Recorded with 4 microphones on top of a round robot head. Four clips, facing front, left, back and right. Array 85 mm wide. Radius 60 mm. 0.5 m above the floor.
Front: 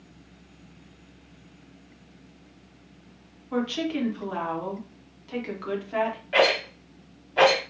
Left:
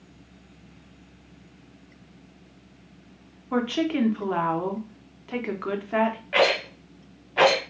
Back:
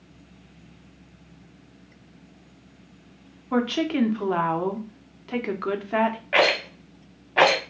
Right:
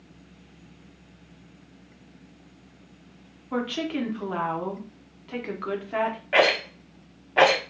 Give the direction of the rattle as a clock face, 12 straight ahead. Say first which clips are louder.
Right 2 dB, front 1 dB; 5 o'clock.